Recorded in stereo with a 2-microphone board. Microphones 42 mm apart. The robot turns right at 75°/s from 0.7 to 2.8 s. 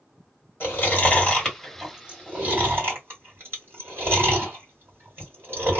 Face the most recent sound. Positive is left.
turn(degrees=-60)  # may be behind; listen again after turning